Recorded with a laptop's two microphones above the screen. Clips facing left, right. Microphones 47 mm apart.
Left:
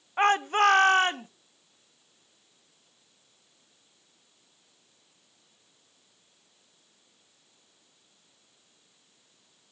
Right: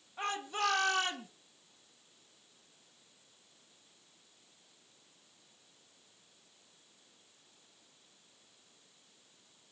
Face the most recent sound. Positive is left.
turn(degrees=40)  # may be behind; listen again after turning